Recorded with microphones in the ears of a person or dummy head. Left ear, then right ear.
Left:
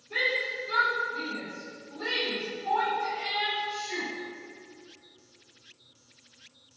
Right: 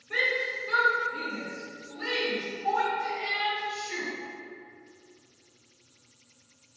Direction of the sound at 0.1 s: 50° right (ahead or behind).